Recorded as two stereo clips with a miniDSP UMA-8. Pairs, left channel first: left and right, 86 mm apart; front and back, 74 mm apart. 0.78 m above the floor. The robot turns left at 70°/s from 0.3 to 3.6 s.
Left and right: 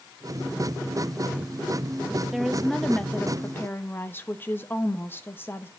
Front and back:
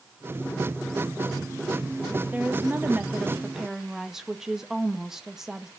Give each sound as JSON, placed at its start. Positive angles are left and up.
{"t": 2.3, "sound": "a woman speaking", "azimuth_deg": -165, "distance_m": 1.0}